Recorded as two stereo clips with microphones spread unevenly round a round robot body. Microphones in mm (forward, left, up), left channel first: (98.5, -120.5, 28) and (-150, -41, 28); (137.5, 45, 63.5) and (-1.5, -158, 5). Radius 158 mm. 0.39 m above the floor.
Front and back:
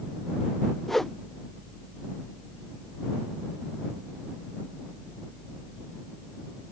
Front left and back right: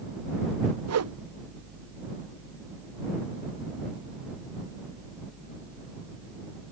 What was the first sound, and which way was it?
A whoosh, 105° right.